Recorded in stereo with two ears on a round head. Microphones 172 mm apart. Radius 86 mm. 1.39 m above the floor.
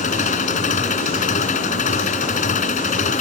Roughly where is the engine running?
Left.